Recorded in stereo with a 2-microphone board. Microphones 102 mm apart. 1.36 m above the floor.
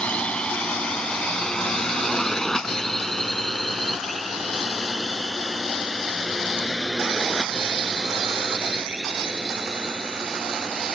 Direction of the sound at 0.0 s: 10° left (ahead or behind).